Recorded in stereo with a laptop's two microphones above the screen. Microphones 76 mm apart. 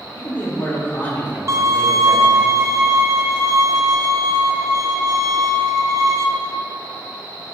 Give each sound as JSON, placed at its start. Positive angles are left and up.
{"t": 0.1, "sound": "a man speaking", "side_deg": 25, "distance_m": 2.5}
{"t": 1.5, "sound": "a violin", "side_deg": -40, "distance_m": 0.8}